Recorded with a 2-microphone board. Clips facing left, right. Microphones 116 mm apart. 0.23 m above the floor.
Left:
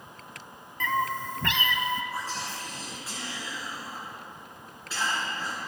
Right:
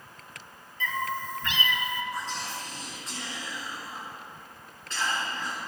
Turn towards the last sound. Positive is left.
turn(degrees=5)  # may be behind; listen again after turning